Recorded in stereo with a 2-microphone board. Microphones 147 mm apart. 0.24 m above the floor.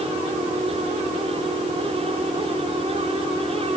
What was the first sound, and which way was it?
Only background noise.